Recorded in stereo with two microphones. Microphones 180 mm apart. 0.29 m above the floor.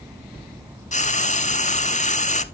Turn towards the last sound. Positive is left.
turn(degrees=40)  # may be behind; listen again after turning